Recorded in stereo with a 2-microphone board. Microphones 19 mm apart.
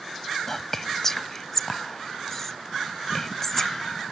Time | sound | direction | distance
0.5 | whispering | 20° left (ahead or behind) | ?